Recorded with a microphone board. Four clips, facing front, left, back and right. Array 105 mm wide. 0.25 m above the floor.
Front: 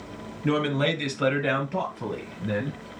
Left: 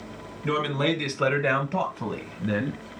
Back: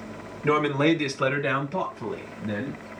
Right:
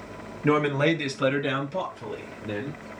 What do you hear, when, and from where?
0.4 s a man speaking: 120° right, 1.3 m; by 2.8 s 70° left, 2.5 m